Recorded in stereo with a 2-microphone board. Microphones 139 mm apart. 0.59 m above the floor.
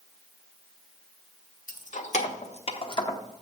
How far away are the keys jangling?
About 1.3 m.